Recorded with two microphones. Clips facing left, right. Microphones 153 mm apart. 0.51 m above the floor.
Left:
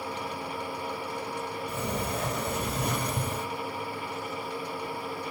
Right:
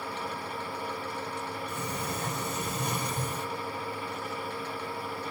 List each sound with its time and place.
1.7 s a sliding door: 55° left (ahead or behind), 3 m